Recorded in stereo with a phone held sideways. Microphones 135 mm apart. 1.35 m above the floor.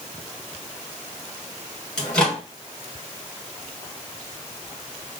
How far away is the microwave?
About 1.5 m.